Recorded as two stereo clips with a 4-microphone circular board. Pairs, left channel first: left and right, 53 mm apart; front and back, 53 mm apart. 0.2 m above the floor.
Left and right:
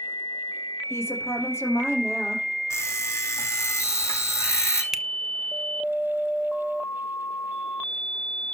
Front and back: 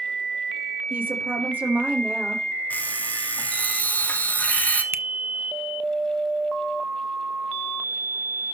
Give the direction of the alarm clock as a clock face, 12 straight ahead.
10 o'clock.